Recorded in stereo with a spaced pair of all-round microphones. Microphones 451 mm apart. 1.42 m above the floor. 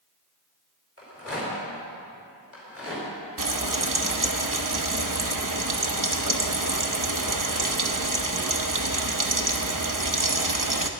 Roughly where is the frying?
Right.